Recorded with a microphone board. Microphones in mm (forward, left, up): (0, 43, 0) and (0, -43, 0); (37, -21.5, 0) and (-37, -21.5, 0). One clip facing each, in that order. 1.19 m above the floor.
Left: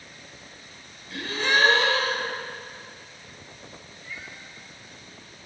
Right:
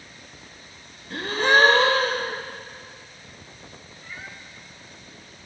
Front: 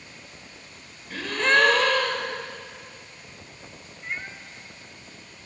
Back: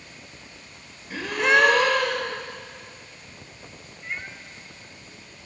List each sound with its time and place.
1.1 s a gasp: 100° right, 1.2 m
4.0 s a cat meowing: 75° right, 0.9 m